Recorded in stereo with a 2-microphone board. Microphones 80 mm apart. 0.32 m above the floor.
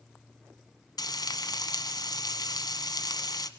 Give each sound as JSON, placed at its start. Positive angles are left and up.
{"t": 1.0, "sound": "frying", "side_deg": 55, "distance_m": 1.3}